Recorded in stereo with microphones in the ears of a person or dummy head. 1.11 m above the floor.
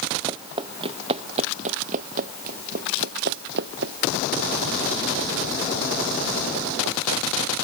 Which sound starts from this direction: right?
Running footsteps, at 0.3 s.